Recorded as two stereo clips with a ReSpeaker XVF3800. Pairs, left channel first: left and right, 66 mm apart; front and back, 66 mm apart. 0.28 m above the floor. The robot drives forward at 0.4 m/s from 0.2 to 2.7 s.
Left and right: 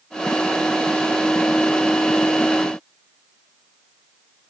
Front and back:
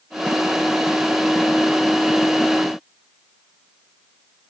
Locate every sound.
Only background noise.